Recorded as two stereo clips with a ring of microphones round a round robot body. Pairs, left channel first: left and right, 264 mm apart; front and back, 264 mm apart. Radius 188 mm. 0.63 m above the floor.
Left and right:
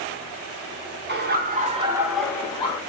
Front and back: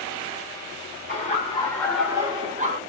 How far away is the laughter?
About 1.0 m.